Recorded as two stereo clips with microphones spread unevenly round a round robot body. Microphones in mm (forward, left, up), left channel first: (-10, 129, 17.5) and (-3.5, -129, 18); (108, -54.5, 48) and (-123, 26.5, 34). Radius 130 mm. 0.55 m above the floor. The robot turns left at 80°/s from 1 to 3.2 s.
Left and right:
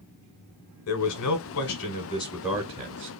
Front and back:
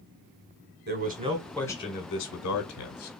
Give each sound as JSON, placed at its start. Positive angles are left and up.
{"t": 0.9, "sound": "a man speaking", "azimuth_deg": 115, "distance_m": 1.6}